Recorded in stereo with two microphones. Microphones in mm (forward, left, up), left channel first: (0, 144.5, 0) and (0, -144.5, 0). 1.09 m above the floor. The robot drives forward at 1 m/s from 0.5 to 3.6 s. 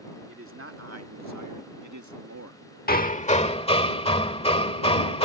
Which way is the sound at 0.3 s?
50° right (ahead or behind).